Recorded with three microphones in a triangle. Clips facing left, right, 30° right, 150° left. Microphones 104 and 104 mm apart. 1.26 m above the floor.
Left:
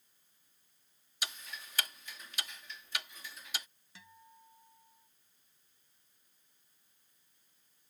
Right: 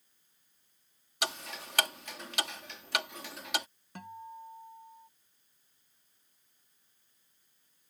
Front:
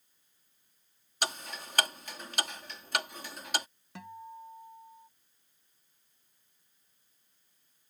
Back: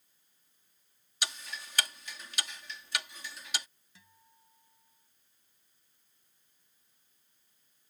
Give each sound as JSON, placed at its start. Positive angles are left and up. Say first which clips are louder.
{"t": 1.2, "sound": "ticking", "louder": "right 8 dB, front 5 dB", "azimuth_deg": -70}
{"t": 4.0, "sound": "a guitar", "louder": "right 14 dB, front 21 dB", "azimuth_deg": -55}